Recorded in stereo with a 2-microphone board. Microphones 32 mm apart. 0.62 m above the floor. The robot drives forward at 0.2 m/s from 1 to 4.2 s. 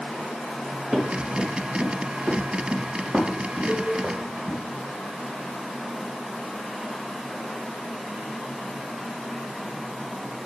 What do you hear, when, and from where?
0.9 s running footsteps: 35° right (ahead or behind), 2.5 m; by 4.6 s 75° right (ahead or behind), 3.5 m
3.7 s a cowbell: 75° right (ahead or behind), 4 m